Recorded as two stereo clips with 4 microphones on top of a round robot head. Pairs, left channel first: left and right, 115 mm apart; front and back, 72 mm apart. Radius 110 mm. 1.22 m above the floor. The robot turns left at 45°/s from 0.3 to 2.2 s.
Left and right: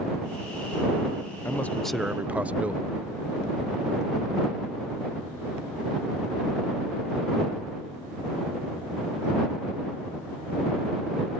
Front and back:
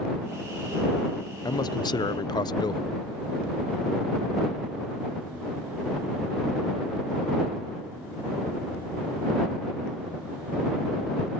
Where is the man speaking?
20° left; by 2.9 s 10° right.